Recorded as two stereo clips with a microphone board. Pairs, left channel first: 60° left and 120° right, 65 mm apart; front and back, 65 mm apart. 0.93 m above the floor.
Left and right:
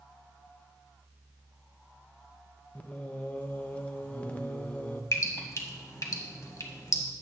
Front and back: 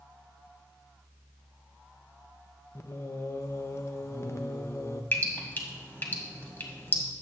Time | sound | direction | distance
2.8 | singing | 5° left | 0.6 m
5.1 | dripping | 50° left | 1.3 m